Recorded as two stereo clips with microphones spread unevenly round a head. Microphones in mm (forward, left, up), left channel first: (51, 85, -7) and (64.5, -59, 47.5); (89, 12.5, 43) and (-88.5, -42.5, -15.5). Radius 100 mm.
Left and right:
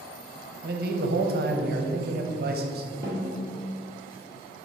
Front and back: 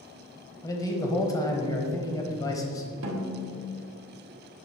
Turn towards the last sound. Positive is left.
turn(degrees=-140)